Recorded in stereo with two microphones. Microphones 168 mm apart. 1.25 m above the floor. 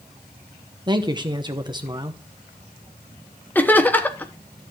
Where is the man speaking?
25° right (ahead or behind), 0.8 m.